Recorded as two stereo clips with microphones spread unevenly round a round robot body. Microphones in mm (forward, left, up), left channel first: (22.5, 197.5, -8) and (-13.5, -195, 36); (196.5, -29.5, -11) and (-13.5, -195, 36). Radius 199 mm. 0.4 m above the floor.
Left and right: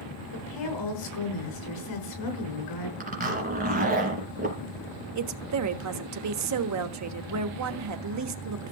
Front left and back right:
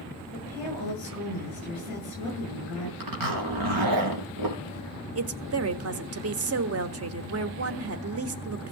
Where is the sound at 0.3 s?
120° left, 6.5 m.